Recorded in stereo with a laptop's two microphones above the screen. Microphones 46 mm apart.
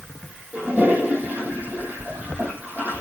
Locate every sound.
0.5 s a toilet flushing: 40° right (ahead or behind), 6.5 m